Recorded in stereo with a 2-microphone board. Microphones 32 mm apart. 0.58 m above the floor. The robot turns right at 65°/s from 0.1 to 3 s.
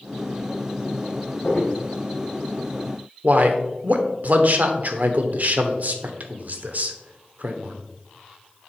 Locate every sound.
1.4 s footsteps: 50° left (ahead or behind), 3.5 m; by 1.7 s 30° left (ahead or behind), 3.5 m
3.2 s a man speaking: 50° right (ahead or behind), 1.2 m